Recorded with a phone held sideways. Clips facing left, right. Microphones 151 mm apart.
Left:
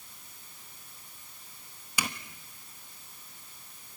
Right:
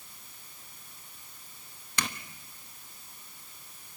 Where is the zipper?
10° left (ahead or behind), 1.3 m.